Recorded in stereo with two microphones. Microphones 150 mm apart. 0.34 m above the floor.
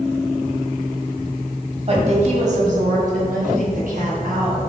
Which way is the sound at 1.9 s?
45° right (ahead or behind).